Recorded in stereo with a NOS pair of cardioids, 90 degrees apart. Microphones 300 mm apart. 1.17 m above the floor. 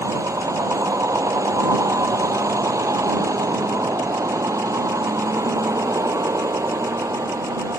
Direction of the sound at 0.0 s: 10° right.